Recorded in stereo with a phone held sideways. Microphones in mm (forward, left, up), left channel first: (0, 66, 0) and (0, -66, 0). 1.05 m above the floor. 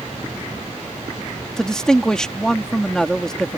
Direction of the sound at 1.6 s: 5° left (ahead or behind).